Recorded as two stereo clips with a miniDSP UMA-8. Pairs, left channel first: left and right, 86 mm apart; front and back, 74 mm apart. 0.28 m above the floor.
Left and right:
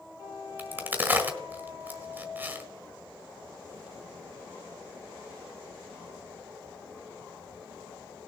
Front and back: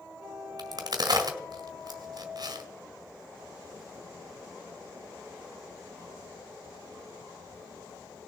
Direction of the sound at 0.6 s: 155° right.